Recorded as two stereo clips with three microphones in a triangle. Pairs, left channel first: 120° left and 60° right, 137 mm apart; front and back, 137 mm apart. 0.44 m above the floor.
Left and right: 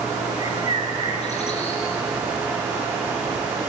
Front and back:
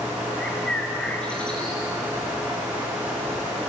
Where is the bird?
85° left, 3.5 m.